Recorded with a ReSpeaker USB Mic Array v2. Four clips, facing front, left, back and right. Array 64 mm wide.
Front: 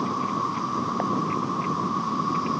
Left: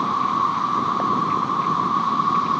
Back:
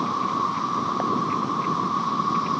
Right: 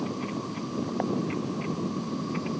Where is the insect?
100° left.